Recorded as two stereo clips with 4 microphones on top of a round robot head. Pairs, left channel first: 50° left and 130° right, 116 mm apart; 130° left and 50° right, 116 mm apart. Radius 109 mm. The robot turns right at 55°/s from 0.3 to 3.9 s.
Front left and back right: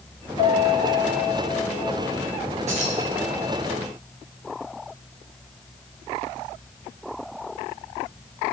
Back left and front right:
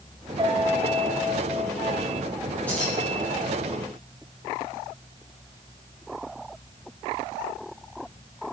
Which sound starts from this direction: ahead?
A piano, at 0.4 s.